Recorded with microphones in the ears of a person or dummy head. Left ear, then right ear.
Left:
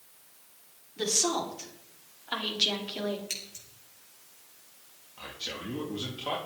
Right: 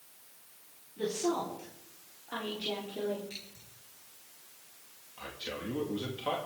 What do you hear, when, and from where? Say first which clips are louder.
1.0 s a woman speaking: left 4 dB; 55° left (ahead or behind), 4.5 m; by 3.2 s 60° left (ahead or behind), 3.5 m
3.3 s scissors: left 8 dB; 65° left (ahead or behind), 5 m
5.2 s a man speaking: left 2 dB; 5° right (ahead or behind), 2.5 m